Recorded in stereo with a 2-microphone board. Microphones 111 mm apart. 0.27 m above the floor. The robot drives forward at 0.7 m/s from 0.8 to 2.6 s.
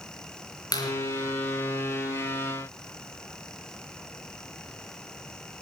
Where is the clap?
35° left (ahead or behind), 4 m.